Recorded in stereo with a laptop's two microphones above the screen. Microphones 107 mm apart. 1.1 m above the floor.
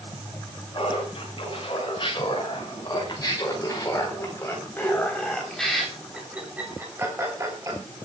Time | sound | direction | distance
0.7 | laughter | 55° left (ahead or behind) | 6.5 m